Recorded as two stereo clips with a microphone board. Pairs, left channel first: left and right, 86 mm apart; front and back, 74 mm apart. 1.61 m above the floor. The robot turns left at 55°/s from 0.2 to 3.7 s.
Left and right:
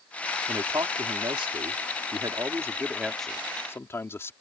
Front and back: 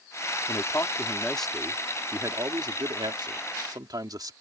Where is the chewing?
I don't hear chewing.